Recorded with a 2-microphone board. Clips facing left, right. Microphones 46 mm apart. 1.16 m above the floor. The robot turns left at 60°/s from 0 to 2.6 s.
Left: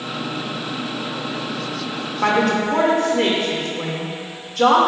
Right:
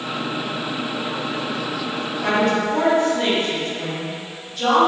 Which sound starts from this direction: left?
A woman speaking, at 2.2 s.